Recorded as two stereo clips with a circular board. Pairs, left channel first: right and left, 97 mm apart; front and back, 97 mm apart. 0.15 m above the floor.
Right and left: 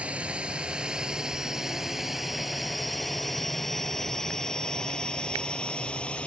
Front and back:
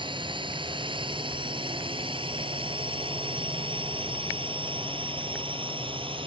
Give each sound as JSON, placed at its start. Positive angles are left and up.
{"t": 0.0, "sound": "a drone", "azimuth_deg": 165}